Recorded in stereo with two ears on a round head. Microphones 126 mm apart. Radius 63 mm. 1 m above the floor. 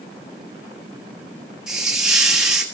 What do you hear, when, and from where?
1.7 s a hiss: 5° right (ahead or behind), 1.6 m